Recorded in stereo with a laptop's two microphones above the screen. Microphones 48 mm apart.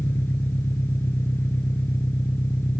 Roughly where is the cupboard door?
No cupboard door in this recording.